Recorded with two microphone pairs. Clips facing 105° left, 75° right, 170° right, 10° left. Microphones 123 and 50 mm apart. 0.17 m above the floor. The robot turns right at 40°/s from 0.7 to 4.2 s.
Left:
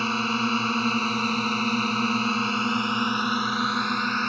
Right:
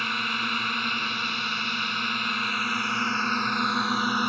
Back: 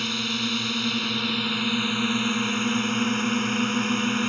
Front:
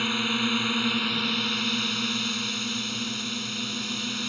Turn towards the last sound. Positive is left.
turn(degrees=-145)